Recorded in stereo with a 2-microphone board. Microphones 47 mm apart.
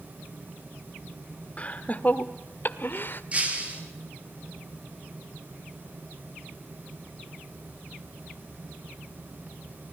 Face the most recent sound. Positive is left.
turn(degrees=-25)  # may be behind; listen again after turning